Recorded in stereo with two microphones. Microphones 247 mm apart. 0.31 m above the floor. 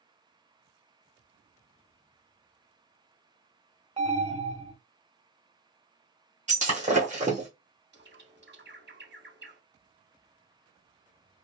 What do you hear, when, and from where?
4.0 s an alarm: 25° right (ahead or behind), 1.1 m
6.5 s breaking glass: 30° right (ahead or behind), 1.2 m
7.9 s a bird: 45° right (ahead or behind), 0.6 m